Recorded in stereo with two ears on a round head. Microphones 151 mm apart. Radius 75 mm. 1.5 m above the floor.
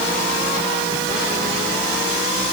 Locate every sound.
Only background noise.